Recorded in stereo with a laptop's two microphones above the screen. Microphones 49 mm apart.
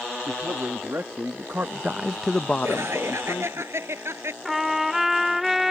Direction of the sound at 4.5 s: 5° right (ahead or behind).